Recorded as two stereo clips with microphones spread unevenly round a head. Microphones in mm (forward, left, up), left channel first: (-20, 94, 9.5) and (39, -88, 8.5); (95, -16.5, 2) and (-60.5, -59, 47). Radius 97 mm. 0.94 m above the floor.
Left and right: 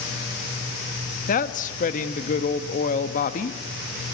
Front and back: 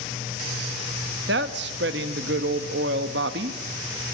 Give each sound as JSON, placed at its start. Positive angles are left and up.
{"t": 1.3, "sound": "a woman speaking", "azimuth_deg": 160, "distance_m": 1.2}